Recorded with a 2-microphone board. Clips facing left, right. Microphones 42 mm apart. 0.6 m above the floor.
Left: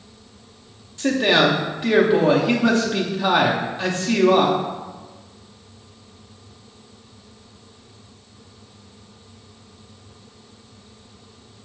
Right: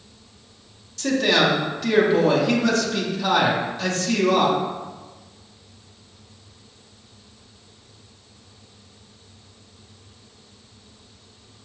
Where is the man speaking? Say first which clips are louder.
Left 2 dB; 25° left (ahead or behind), 0.6 m.